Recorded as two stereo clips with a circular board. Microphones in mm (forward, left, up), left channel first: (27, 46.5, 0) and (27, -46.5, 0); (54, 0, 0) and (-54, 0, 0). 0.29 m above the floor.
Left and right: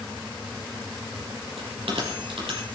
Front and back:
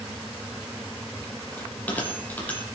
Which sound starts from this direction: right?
A bell, at 1.6 s.